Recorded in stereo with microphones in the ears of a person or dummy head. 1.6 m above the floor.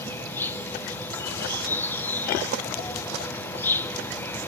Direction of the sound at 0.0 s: 10° left (ahead or behind).